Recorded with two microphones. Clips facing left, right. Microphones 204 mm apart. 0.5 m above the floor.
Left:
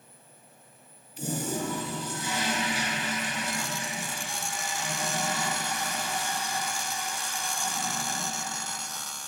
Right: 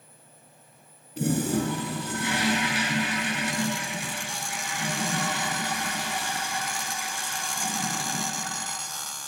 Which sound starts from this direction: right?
A toilet flushing, at 1.2 s.